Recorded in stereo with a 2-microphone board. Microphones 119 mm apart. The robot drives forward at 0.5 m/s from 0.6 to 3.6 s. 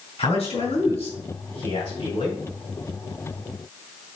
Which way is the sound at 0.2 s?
60° left (ahead or behind).